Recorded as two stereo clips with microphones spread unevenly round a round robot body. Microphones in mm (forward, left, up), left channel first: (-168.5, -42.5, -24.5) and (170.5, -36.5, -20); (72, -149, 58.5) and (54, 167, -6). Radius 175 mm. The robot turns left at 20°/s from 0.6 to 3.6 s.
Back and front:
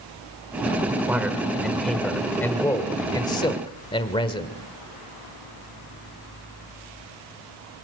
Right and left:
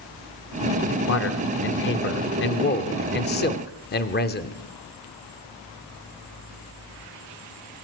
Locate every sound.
1.1 s a man speaking: 80° right, 1.3 m; by 4.6 s 130° right, 1.3 m